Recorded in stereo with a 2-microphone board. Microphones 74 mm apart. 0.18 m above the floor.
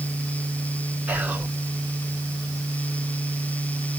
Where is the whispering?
20° right (ahead or behind), 1.9 m.